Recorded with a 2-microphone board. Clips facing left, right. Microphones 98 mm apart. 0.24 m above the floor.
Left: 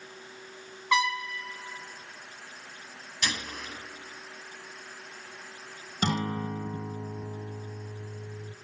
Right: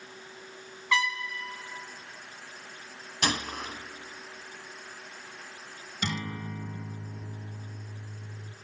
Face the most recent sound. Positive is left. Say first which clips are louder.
# left 6 dB
turn(degrees=45)  # may be behind; listen again after turning